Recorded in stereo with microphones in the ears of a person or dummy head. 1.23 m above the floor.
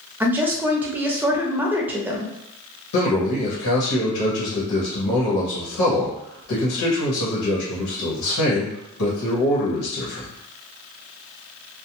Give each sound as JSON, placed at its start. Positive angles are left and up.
{"t": 0.2, "sound": "a woman speaking", "side_deg": -10, "distance_m": 0.6}
{"t": 2.9, "sound": "a man speaking", "side_deg": 85, "distance_m": 1.0}